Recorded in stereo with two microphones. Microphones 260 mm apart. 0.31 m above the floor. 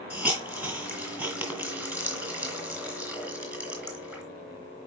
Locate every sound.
0.1 s a hiss: 5° right (ahead or behind), 3 m